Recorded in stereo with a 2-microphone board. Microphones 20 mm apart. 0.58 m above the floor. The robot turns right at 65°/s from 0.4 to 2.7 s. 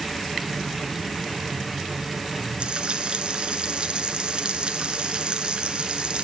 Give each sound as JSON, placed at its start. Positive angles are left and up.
{"t": 2.6, "sound": "frying", "side_deg": -55, "distance_m": 3.0}